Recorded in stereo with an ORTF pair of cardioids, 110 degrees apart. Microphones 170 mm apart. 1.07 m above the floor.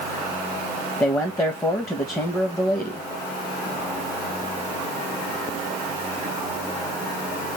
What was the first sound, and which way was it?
A man speaking, 15° left.